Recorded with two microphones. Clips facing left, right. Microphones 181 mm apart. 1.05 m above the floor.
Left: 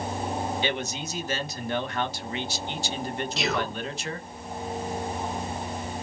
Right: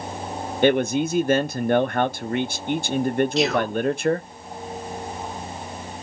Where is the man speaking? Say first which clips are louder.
Right 12 dB; 55° right (ahead or behind), 0.6 m.